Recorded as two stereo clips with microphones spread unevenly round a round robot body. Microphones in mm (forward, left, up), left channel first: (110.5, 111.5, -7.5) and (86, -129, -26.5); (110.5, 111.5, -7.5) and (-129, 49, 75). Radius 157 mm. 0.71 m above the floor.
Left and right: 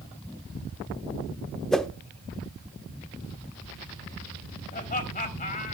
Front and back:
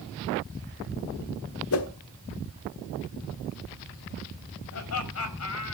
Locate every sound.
1.7 s a whoosh: 5° right, 1.2 m
4.7 s laughter: 25° left, 4.5 m